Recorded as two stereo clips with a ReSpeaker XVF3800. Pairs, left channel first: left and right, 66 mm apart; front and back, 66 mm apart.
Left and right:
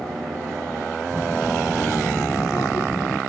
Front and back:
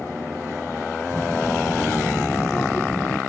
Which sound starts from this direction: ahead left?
A child speaking, at 1.1 s.